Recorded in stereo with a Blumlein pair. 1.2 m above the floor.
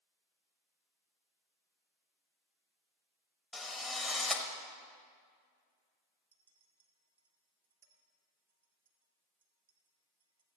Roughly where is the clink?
Ahead right.